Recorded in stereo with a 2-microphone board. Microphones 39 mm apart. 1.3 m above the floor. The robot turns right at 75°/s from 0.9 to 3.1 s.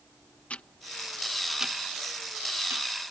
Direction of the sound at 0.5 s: 35° left (ahead or behind).